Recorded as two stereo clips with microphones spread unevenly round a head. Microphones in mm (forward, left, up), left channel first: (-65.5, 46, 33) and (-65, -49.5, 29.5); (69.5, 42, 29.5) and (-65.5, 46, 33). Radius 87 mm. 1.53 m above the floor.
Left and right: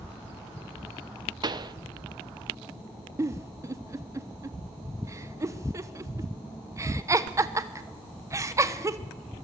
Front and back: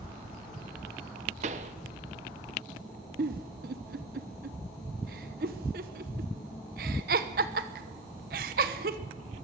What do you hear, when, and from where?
1.4 s a pop: 135° right, 1.2 m
3.2 s a giggle: 150° right, 1.2 m